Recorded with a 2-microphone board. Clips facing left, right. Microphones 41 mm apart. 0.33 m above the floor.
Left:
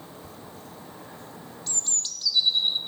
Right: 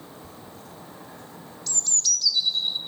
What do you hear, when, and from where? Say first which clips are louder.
1.7 s a bird: right 6 dB; 30° left (ahead or behind), 1.2 m